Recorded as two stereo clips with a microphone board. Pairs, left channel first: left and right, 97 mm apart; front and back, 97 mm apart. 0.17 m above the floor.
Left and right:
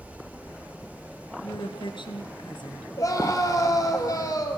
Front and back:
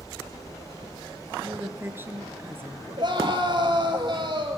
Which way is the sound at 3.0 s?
145° left.